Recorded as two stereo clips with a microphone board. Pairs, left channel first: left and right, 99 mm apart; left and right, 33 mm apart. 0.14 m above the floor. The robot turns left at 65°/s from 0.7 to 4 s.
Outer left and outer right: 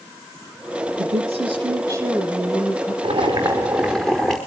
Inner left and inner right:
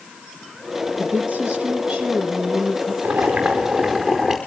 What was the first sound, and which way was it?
A woman speaking, 85° right.